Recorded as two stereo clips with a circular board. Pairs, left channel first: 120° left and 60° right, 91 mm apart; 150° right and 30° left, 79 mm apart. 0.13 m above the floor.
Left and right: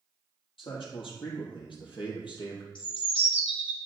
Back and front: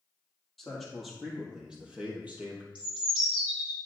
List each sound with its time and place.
0.6 s a man speaking: 125° left, 3 m; by 2.6 s 95° left, 3 m
2.8 s a bird: 105° left, 3 m